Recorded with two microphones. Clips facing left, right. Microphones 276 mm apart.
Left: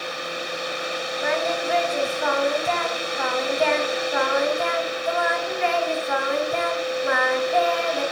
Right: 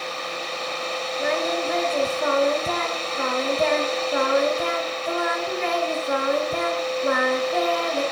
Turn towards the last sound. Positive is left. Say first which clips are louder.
# right 1 dB
turn(degrees=-40)  # may be behind; listen again after turning